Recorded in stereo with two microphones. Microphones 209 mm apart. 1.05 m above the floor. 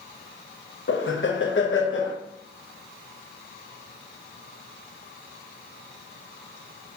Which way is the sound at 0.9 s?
65° left (ahead or behind).